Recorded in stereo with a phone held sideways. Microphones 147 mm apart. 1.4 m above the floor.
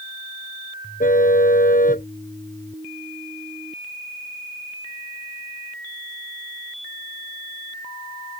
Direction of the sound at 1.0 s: 65° left (ahead or behind).